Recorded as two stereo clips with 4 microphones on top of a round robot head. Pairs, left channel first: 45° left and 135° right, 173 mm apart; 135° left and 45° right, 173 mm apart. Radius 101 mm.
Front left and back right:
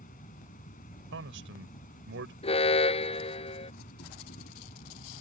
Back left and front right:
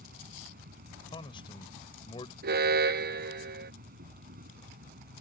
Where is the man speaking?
160° right.